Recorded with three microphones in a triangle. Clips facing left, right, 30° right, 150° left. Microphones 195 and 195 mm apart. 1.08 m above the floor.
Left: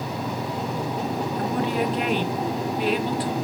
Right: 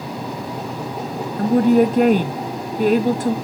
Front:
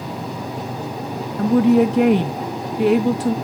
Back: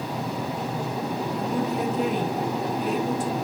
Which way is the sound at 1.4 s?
45° right.